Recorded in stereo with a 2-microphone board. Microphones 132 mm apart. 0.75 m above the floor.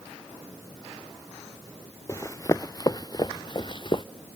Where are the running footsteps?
25° left (ahead or behind); by 4.0 s 40° left (ahead or behind).